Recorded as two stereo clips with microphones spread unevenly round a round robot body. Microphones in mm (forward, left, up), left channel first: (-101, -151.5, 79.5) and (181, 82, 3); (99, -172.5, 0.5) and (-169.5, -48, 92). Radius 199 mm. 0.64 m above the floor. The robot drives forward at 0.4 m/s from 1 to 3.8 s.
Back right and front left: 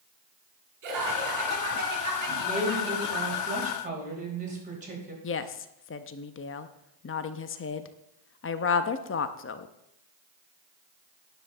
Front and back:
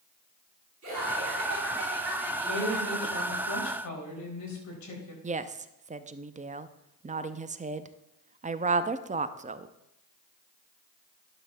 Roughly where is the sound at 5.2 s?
Behind right.